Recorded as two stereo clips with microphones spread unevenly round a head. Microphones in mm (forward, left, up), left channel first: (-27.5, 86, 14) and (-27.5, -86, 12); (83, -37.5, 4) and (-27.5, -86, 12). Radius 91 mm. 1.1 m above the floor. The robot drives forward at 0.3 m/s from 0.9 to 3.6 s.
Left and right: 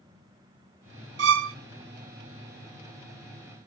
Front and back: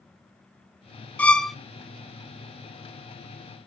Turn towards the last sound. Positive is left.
turn(degrees=-140)